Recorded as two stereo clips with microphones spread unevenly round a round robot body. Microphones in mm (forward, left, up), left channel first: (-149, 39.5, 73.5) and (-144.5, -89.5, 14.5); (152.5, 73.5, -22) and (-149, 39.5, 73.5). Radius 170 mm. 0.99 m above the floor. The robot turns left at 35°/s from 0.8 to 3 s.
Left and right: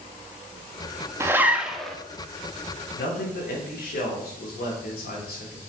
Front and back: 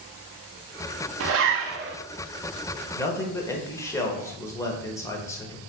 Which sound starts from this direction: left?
A man speaking, at 2.9 s.